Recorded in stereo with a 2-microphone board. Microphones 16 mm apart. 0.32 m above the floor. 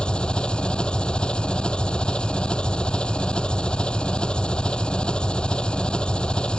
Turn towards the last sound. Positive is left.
turn(degrees=65)  # may be behind; listen again after turning